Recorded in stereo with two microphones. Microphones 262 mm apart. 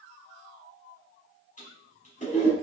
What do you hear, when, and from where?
1.6 s a toilet flushing: 30° left (ahead or behind), 2.5 m